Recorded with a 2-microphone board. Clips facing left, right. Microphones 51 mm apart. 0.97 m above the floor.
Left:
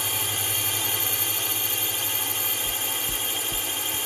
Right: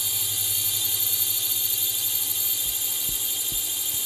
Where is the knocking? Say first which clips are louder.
Left 5 dB; centre (ahead or behind).